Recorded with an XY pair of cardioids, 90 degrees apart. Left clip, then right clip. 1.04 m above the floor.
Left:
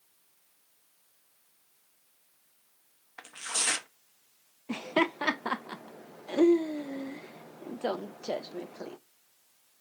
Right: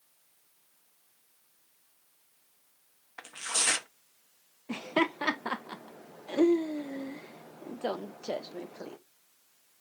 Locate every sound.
3.2 s tearing paper: 10° right, 0.8 m
4.7 s laughter: 10° left, 0.6 m